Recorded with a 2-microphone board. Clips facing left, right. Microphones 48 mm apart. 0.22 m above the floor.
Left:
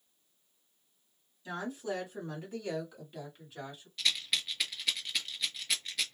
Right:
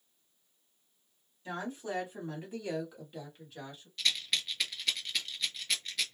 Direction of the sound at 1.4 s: 30° right (ahead or behind).